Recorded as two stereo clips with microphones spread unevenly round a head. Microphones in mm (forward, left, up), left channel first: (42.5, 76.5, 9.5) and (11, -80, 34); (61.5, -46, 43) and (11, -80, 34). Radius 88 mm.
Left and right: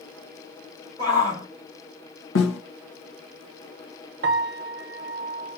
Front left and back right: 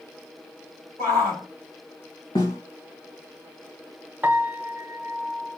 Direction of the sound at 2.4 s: 85° left.